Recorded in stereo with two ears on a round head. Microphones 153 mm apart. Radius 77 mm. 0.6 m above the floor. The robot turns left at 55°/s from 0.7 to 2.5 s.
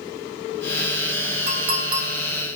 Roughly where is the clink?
Right.